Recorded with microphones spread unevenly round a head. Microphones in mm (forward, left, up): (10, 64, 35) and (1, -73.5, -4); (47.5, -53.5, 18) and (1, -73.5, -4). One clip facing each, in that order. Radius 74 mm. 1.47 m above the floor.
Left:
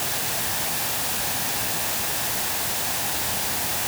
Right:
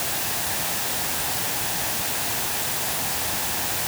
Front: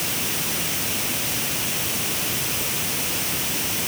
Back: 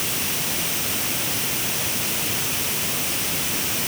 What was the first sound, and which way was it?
Only background noise.